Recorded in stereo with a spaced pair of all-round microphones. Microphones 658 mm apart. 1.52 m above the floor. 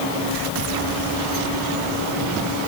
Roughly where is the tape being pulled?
No tape being pulled in this recording.